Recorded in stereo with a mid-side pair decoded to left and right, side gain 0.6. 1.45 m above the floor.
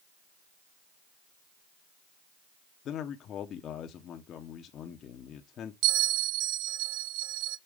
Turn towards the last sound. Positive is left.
turn(degrees=-70)